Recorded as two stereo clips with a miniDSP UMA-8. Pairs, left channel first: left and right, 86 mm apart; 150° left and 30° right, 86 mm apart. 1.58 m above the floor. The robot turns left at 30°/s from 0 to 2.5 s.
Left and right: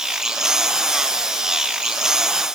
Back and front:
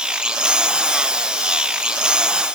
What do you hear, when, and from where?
Only background noise.